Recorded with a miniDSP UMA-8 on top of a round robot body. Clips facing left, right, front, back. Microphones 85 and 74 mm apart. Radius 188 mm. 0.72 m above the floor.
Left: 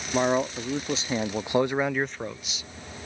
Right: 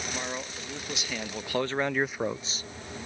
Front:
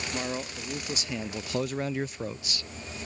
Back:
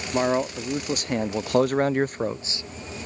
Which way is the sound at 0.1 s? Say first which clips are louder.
Left 12 dB, back 14 dB; 140° left.